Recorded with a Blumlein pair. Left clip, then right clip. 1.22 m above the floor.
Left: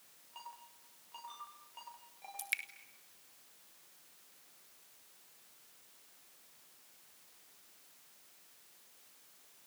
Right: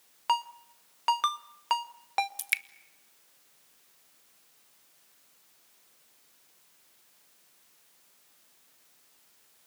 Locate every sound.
0.3 s a ringtone: 45° right, 1.0 m
2.4 s dripping: 25° right, 1.0 m